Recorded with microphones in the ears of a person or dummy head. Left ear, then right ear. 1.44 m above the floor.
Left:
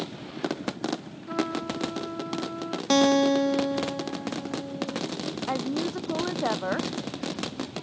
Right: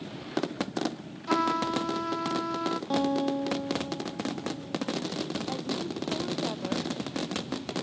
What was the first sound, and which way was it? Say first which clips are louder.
A trumpet: right 4 dB; 45° right (ahead or behind).